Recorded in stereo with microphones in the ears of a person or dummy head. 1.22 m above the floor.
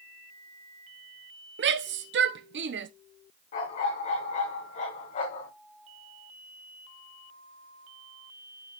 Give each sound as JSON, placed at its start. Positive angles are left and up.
{"t": 1.6, "sound": "a shout", "side_deg": -60, "distance_m": 0.7}
{"t": 3.5, "sound": "a dog barking", "side_deg": 50, "distance_m": 3.0}